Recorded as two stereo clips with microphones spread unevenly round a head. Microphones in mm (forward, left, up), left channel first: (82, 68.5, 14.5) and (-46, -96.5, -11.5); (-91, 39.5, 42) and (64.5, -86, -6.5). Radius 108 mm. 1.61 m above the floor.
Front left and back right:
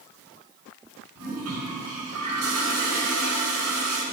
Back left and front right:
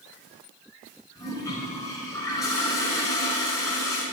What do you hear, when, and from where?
1.1 s a toilet flushing: 150° right, 5 m